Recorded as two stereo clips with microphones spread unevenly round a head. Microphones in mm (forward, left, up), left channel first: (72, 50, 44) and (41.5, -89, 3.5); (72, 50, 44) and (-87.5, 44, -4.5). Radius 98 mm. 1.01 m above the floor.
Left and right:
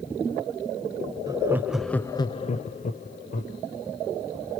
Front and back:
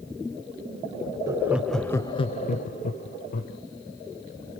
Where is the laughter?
135° right, 0.7 m; by 3.6 s 45° left, 1.2 m.